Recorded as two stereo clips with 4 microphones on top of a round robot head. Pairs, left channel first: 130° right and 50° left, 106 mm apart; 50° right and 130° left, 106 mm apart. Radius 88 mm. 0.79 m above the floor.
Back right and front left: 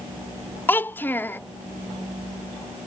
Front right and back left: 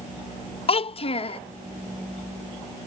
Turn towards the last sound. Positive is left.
turn(degrees=-60)